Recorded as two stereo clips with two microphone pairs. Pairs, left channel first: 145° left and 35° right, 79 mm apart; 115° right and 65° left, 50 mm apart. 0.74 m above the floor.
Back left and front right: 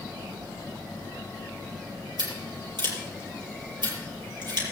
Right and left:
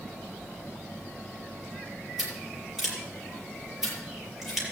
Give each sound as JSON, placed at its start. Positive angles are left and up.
{"t": 2.2, "sound": "scissors", "azimuth_deg": -15, "distance_m": 5.5}